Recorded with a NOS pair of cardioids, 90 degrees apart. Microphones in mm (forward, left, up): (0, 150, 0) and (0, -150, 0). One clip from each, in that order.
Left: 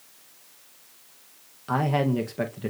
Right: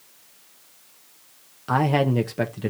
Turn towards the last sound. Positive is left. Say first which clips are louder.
# right 4 dB
turn(degrees=-20)